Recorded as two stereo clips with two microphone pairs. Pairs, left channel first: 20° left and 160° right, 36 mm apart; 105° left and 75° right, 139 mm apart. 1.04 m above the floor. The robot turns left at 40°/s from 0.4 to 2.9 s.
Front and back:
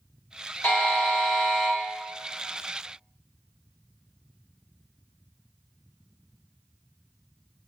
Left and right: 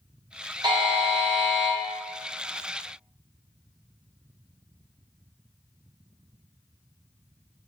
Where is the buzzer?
25° right, 0.7 m; by 1.8 s 65° right, 0.7 m.